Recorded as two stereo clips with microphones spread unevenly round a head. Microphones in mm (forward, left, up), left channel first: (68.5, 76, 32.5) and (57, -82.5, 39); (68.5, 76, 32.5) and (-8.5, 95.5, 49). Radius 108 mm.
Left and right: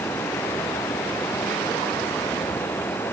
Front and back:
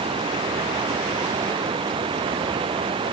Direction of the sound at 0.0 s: 165° left.